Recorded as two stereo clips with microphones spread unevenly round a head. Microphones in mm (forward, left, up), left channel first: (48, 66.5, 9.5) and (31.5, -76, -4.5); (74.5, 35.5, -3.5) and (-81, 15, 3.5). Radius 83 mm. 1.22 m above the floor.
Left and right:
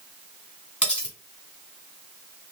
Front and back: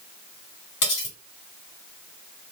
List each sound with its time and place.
0.8 s cutlery clinking: 5° left, 3 m